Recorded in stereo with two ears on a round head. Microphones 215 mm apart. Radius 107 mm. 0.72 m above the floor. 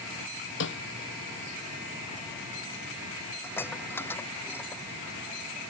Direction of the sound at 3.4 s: 10° left (ahead or behind).